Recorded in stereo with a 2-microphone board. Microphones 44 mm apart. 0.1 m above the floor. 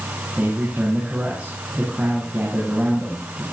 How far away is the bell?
No bell in this recording.